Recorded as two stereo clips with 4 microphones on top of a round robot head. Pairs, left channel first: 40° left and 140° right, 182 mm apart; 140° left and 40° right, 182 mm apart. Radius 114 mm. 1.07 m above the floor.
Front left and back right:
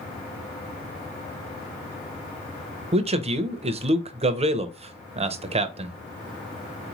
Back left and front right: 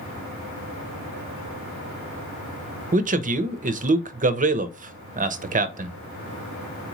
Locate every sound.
2.9 s a man speaking: 85° right, 0.7 m